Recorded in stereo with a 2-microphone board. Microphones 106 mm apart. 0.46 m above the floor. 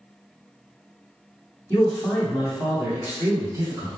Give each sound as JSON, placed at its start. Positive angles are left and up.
{"t": 1.7, "sound": "a man speaking", "side_deg": 20, "distance_m": 0.9}